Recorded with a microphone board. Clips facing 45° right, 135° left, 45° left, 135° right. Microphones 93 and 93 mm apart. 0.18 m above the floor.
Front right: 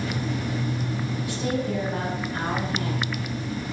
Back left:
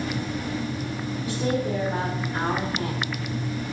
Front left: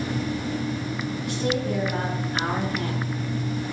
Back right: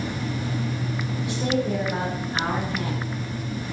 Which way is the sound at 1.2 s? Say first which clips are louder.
Back left 3 dB, back right 2 dB; 160° left.